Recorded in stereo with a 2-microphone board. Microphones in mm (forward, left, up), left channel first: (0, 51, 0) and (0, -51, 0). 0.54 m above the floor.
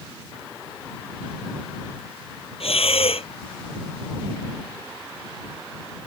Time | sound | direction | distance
2.6 | breathing | 75° left (ahead or behind) | ?